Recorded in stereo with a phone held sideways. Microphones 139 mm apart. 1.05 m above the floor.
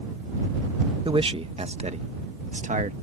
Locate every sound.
1.1 s a man speaking: 40° right (ahead or behind); by 2.9 s 65° right (ahead or behind)